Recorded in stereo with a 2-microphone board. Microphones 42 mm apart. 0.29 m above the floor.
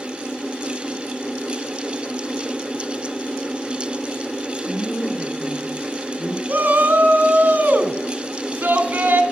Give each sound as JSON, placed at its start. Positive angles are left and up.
{"t": 4.7, "sound": "a woman speaking", "side_deg": 65, "distance_m": 3.5}
{"t": 6.5, "sound": "a shout", "side_deg": -40, "distance_m": 3.0}